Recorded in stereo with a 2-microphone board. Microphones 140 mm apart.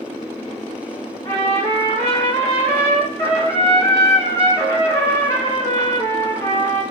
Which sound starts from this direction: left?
A trumpet, at 1.2 s.